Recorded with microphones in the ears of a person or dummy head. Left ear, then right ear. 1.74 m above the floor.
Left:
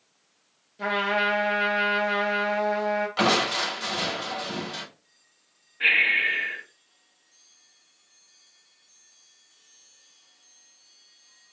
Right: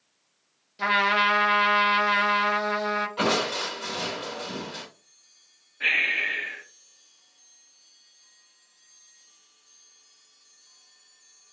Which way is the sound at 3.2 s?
35° left (ahead or behind).